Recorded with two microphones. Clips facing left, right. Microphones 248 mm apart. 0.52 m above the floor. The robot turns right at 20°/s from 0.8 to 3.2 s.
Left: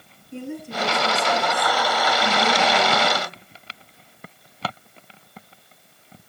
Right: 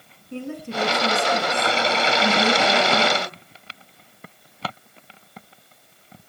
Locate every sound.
0.3 s a woman speaking: 110° right, 4.5 m; by 3.4 s 65° right, 4.5 m